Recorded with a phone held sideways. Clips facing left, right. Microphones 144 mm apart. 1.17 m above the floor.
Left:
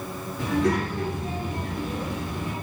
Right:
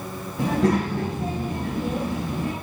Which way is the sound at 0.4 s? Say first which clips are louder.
Right 3 dB; 80° right.